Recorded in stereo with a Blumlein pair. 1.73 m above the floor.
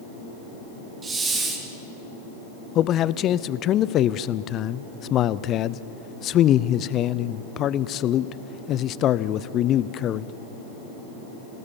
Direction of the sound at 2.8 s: 30° left.